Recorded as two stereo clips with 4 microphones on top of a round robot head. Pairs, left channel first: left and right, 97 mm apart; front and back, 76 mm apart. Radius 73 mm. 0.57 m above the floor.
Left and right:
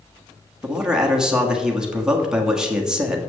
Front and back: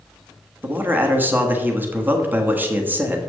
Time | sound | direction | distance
0.6 | a man speaking | 165° right | 1.4 m